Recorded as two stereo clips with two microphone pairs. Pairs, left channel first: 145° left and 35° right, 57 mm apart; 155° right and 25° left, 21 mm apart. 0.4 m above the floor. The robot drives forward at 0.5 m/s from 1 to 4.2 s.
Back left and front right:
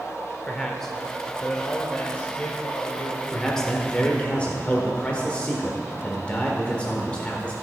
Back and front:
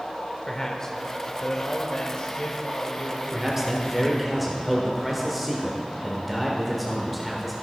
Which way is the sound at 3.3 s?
70° left.